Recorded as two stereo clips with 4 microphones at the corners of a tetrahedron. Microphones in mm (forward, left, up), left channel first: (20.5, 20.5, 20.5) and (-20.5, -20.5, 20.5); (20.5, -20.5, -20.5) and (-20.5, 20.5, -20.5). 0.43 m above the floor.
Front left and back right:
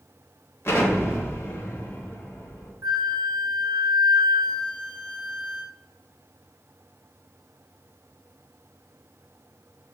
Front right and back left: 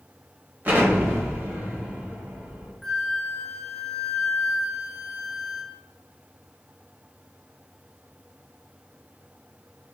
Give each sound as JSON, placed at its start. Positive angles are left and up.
{"t": 0.7, "sound": "an explosion", "azimuth_deg": 85, "distance_m": 0.8}
{"t": 2.8, "sound": "a flute", "azimuth_deg": -130, "distance_m": 0.5}